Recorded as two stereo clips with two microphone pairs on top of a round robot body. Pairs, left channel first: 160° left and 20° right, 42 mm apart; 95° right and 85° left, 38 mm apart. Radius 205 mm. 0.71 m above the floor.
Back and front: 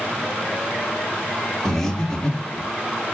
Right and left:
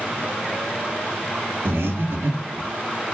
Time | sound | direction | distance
1.6 | breathing | 80° left | 1.3 m